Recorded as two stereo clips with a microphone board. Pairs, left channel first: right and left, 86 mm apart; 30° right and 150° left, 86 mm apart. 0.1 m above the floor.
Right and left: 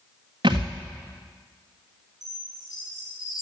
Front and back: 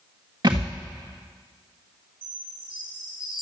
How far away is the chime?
About 4.5 m.